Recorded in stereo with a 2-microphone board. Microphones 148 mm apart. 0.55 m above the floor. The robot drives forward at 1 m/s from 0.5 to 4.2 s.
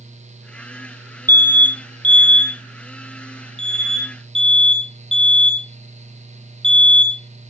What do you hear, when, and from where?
1.3 s an alarm: 15° left (ahead or behind), 1.2 m; by 7.4 s 5° left (ahead or behind), 4 m